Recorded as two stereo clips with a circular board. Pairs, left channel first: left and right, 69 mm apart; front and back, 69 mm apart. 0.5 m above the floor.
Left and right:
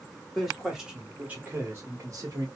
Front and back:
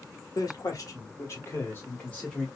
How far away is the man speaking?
About 1.7 m.